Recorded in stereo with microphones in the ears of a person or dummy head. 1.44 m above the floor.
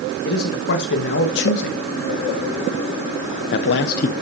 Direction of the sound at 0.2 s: 50° left (ahead or behind).